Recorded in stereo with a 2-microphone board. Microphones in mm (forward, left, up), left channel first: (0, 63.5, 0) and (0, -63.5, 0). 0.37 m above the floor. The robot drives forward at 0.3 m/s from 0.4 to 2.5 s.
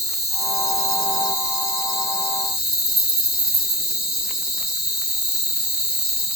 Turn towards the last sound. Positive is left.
turn(degrees=0)  # may be behind; listen again after turning